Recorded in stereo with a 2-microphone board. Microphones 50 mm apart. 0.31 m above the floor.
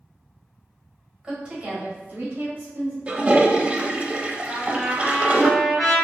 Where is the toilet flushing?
25° right (ahead or behind), 0.5 m.